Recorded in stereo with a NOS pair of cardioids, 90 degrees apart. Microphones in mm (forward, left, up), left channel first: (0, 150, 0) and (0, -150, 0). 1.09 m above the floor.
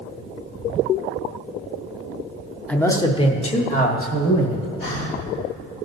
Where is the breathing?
45° left, 2.5 m.